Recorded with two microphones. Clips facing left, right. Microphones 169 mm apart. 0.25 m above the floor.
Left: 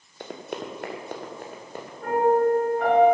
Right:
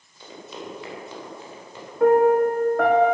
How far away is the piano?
About 4 m.